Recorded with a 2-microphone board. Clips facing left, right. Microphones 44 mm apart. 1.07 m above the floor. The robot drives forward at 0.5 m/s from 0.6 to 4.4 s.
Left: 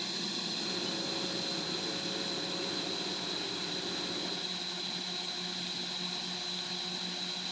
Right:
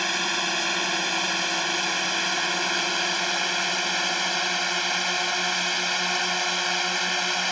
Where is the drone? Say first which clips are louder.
Right 13 dB; 70° right (ahead or behind); by 7.5 s 85° right.